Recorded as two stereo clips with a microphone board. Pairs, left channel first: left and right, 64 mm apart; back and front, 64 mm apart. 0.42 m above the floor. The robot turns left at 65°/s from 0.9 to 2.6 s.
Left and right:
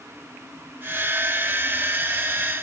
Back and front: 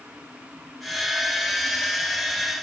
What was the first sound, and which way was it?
Only background noise.